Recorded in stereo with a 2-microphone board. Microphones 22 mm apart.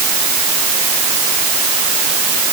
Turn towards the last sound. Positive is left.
No sound to turn to.